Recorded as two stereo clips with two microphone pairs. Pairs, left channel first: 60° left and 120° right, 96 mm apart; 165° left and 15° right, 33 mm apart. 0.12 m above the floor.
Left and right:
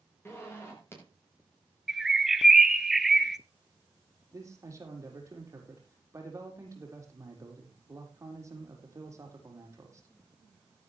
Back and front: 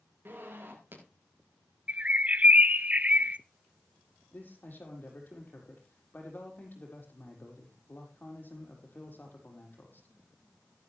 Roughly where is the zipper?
Ahead.